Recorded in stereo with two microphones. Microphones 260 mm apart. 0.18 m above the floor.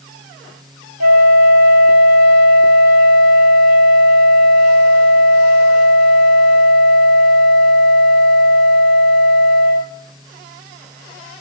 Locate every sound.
1.0 s a flute: 80° right, 0.8 m